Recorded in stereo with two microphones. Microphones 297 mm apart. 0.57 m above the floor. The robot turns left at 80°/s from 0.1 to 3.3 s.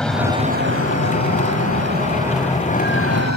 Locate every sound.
0.0 s an aircraft: 5° left (ahead or behind); by 3.4 s 65° left (ahead or behind)